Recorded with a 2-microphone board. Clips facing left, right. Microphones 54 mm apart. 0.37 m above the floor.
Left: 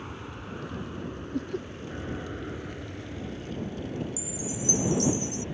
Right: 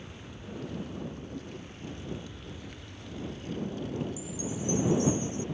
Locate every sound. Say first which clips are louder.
0.0 s an aircraft: left 6 dB; 55° left (ahead or behind); by 5.5 s 50° left (ahead or behind)
1.3 s laughter: left 9 dB; 60° left (ahead or behind)
4.2 s a chime: left 1 dB; 75° left (ahead or behind)